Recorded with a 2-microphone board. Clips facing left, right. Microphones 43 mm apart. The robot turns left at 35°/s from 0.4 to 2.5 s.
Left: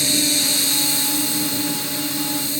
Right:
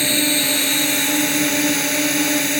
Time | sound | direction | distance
0.0 | a drone | 35° right | ?